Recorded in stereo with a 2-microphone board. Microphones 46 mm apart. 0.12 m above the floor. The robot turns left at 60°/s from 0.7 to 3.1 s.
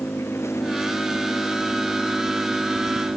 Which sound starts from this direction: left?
An engine running, at 0.0 s.